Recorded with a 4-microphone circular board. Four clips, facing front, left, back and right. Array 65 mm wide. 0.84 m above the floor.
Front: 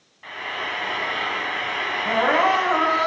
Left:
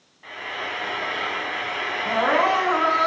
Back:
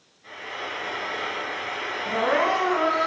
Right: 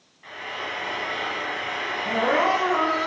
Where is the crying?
15° left, 4.5 m.